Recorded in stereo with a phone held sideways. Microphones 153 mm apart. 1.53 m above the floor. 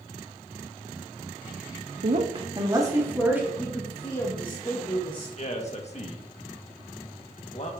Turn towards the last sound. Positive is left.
turn(degrees=45)  # may be behind; listen again after turning